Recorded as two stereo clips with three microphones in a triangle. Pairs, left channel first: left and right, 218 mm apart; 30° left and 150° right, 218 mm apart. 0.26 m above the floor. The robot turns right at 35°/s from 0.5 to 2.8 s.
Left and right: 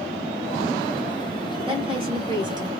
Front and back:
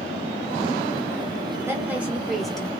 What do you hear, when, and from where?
1.7 s a woman speaking: 90° right, 1.4 m; by 2.7 s 50° right, 1.4 m